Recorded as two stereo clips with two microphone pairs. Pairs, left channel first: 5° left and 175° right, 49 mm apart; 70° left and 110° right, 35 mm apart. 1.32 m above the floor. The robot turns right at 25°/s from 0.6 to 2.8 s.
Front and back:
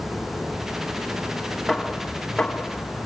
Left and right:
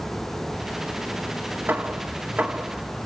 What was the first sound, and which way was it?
Hammering, 90° right.